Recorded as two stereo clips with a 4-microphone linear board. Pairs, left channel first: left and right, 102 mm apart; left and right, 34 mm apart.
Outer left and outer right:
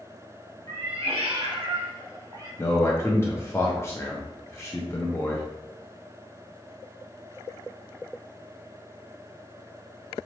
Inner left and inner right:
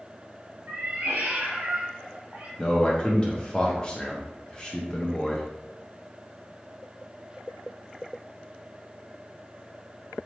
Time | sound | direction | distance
0.7 | a cat meowing | 75° right (ahead or behind) | 1.1 m
2.6 | a man speaking | 25° left (ahead or behind) | 0.7 m